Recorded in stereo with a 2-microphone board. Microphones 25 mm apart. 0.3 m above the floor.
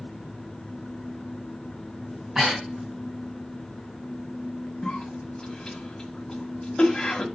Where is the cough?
15° left (ahead or behind), 1.6 m.